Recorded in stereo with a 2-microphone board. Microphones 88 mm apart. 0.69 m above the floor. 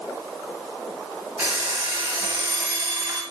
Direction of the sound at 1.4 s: 25° right (ahead or behind).